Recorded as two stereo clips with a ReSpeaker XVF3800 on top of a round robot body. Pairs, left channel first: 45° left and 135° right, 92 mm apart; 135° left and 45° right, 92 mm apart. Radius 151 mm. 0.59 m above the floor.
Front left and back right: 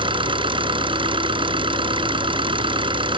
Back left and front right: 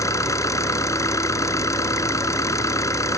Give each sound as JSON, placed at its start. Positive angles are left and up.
{"t": 0.0, "sound": "an engine running", "azimuth_deg": -170}